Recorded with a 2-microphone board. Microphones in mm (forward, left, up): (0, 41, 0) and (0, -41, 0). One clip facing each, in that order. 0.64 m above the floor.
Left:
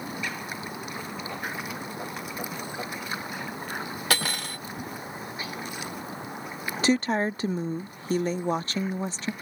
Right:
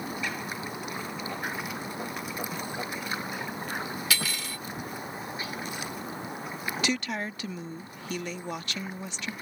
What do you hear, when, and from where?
4.1 s cutlery clinking: 50° left (ahead or behind)
6.8 s a woman speaking: 35° left (ahead or behind)